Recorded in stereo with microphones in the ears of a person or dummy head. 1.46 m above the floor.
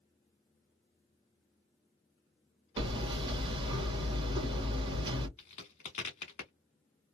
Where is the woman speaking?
No woman speaking in this recording.